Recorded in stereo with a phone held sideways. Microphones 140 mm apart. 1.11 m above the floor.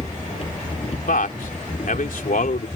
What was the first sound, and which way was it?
A machine running, 45° left (ahead or behind).